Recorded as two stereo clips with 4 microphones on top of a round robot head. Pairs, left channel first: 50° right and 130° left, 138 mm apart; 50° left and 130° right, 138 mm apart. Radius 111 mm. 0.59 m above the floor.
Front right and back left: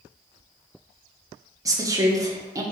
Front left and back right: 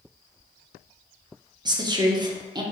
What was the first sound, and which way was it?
A woman speaking, 175° right.